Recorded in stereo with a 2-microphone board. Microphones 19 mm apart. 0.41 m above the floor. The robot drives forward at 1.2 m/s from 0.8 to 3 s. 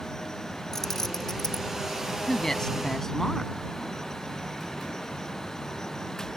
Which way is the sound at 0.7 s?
20° left (ahead or behind).